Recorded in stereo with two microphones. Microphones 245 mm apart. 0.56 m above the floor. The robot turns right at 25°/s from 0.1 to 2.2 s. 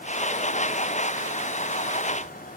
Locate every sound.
Only background noise.